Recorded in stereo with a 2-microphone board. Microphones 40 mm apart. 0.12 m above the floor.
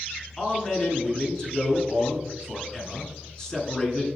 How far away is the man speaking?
About 1.1 m.